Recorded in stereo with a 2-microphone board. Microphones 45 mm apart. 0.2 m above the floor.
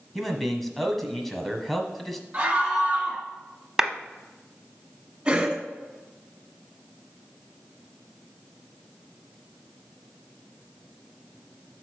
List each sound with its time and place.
0.1 s a man speaking: 5° left (ahead or behind), 1.3 m
2.3 s a scream: 25° right (ahead or behind), 1.7 m
3.8 s a clap: 10° right (ahead or behind), 0.9 m
5.2 s a cough: 20° right (ahead or behind), 2 m